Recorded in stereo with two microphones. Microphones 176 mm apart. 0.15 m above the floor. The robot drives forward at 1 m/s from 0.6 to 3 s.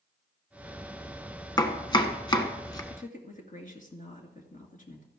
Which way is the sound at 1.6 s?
25° left (ahead or behind).